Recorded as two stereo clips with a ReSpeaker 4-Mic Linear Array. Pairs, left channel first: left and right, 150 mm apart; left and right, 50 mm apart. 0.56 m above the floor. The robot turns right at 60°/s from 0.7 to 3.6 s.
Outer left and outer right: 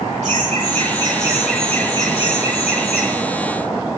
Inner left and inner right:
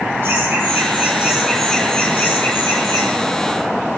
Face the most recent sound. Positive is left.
turn(degrees=125)